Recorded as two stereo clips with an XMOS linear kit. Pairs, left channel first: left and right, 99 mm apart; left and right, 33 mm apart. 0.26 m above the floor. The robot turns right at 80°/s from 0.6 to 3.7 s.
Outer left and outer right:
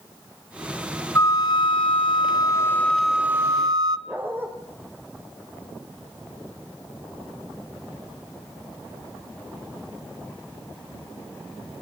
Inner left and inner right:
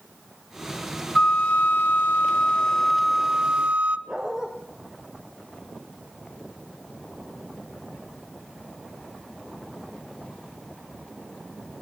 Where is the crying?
No crying in this recording.